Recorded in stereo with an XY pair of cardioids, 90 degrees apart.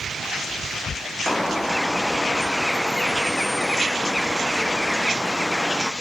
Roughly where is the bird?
Ahead.